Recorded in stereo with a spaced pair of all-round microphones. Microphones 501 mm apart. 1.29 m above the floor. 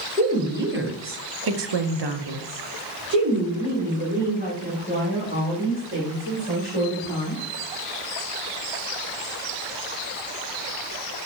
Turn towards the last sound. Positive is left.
turn(degrees=-15)  # may be behind; listen again after turning